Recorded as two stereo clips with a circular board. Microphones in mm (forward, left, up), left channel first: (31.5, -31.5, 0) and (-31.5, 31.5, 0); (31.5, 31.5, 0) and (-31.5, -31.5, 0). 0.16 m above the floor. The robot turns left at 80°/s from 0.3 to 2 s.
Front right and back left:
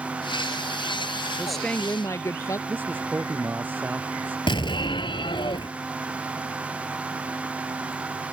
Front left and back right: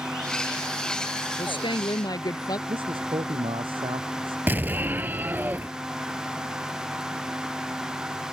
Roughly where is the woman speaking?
Ahead left.